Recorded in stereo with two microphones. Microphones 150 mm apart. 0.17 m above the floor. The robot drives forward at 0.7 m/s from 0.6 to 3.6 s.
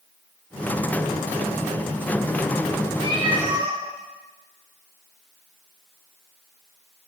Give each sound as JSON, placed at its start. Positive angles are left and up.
{"t": 3.0, "sound": "a cat meowing", "side_deg": -35, "distance_m": 4.5}